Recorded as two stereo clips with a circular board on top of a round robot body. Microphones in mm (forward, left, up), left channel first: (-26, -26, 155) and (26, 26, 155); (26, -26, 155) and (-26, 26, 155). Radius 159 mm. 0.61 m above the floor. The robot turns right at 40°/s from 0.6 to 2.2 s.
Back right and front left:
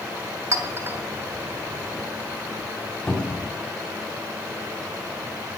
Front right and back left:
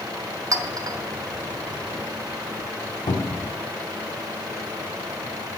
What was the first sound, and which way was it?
A clink, 95° left.